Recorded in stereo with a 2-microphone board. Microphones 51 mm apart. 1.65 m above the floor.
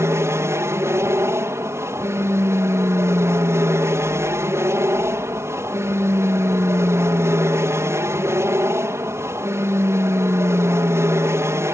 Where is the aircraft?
65° right (ahead or behind).